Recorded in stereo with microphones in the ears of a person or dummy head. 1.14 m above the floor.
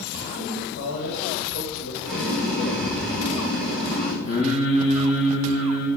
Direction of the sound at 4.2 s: 70° left (ahead or behind).